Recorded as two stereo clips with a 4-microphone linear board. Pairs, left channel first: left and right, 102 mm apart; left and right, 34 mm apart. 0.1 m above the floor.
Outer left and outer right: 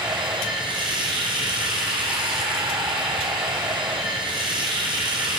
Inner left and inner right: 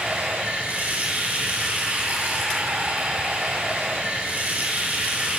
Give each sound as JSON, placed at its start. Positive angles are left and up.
{"t": 0.0, "sound": "running water", "side_deg": -50, "distance_m": 1.5}